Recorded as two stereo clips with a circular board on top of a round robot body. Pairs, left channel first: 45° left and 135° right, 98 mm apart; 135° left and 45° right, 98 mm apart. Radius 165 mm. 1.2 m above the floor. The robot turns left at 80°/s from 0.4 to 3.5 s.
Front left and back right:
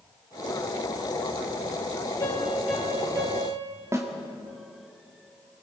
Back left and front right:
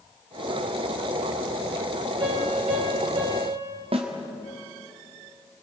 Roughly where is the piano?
Ahead.